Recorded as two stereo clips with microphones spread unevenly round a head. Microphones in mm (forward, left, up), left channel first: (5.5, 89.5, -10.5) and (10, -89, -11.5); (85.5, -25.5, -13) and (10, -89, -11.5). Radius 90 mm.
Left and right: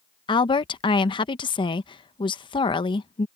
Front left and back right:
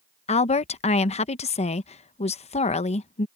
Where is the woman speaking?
25° left.